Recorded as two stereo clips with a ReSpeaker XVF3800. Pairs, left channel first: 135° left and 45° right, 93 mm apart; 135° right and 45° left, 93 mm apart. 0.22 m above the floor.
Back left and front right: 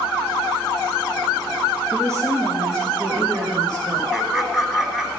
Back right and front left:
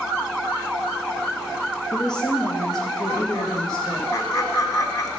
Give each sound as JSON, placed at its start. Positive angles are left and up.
{"t": 1.9, "sound": "a woman speaking", "azimuth_deg": -100, "distance_m": 3.5}
{"t": 4.1, "sound": "laughter", "azimuth_deg": -130, "distance_m": 1.5}